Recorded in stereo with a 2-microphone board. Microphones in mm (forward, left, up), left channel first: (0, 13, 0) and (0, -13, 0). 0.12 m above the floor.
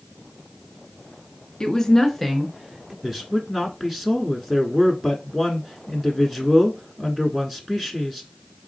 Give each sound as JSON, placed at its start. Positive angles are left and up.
{"t": 1.6, "sound": "a woman speaking", "side_deg": 25, "distance_m": 1.1}
{"t": 3.0, "sound": "a man speaking", "side_deg": -5, "distance_m": 1.1}